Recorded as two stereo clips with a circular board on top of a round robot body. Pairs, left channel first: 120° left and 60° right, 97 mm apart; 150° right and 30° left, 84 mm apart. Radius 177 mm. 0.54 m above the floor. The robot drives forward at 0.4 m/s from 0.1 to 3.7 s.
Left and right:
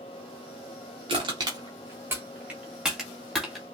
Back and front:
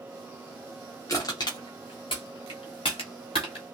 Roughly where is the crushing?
Right.